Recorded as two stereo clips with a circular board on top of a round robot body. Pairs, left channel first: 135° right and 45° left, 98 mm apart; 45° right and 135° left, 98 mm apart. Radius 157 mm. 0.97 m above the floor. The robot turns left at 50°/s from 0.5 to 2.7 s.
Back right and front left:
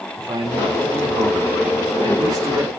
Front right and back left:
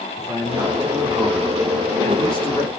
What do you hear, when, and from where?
0.2 s a man speaking: 95° left, 4.5 m; by 2.7 s 15° right, 4.5 m